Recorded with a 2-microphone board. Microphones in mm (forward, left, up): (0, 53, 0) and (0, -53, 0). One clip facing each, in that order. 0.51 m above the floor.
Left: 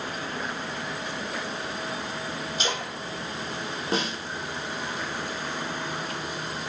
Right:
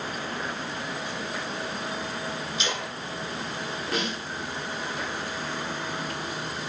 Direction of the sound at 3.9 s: 30° left (ahead or behind).